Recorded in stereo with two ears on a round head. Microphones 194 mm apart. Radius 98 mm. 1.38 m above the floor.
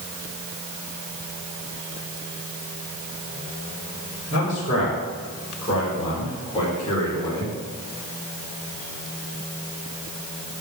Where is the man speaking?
35° left (ahead or behind), 5.5 m; by 7.5 s 15° left (ahead or behind), 5 m.